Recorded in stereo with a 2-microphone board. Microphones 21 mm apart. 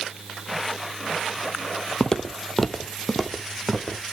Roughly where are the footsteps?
Left.